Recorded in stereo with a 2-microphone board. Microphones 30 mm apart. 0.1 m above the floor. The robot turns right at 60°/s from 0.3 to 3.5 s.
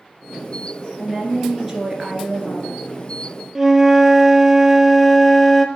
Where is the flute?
10° right (ahead or behind), 0.7 m.